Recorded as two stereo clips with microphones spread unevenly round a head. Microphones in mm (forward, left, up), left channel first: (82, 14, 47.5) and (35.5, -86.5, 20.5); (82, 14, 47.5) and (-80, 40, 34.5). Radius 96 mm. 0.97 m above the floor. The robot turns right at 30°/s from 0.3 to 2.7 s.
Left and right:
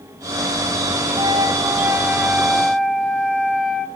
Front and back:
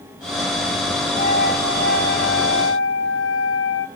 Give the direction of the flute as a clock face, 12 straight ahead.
2 o'clock.